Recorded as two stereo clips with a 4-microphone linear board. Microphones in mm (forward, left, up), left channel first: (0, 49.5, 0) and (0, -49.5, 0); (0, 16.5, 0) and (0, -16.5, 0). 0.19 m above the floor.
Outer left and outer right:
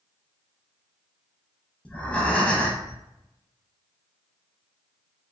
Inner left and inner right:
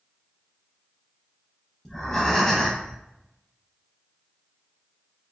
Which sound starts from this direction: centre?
Breathing, at 1.9 s.